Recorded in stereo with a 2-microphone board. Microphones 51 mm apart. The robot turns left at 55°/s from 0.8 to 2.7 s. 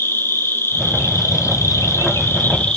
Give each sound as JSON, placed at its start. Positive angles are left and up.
{"t": 0.0, "sound": "an insect", "azimuth_deg": 130, "distance_m": 0.7}